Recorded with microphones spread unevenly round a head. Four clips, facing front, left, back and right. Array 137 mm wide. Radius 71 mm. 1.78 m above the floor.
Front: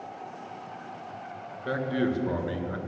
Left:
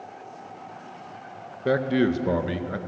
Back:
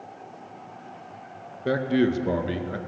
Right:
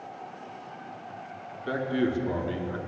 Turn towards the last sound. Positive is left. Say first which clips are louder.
# left 5 dB, back 5 dB
turn(degrees=125)